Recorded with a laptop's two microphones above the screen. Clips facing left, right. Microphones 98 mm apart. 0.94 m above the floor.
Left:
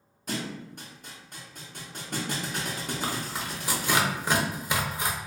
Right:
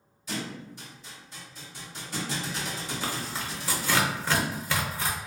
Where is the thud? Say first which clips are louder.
Left 1 dB; 50° left (ahead or behind), 0.9 m.